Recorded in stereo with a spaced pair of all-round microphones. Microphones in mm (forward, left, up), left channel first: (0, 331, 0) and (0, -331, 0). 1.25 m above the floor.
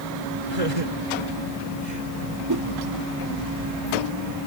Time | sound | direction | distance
0.5 | laughter | 65° right (ahead or behind) | ?
2.5 | a whoosh | 35° right (ahead or behind) | ?